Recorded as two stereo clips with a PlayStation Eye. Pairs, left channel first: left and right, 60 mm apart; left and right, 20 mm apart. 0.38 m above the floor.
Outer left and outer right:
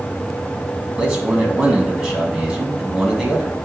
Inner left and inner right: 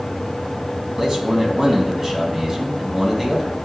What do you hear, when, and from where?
1.0 s a man speaking: 15° right (ahead or behind), 2.5 m